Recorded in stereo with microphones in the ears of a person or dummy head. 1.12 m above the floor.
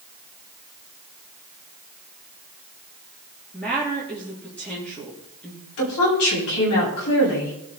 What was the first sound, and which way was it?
A woman speaking, 5° left (ahead or behind).